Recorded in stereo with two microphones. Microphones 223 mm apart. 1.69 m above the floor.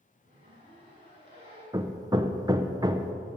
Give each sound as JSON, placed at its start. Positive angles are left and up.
{"t": 0.2, "sound": "a zipper", "side_deg": -25, "distance_m": 5.5}
{"t": 1.7, "sound": "hammering", "side_deg": -15, "distance_m": 0.6}